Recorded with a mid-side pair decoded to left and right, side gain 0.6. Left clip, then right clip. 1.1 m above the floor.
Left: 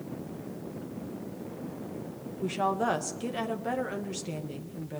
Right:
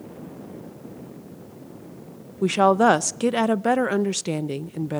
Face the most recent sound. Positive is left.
turn(degrees=-55)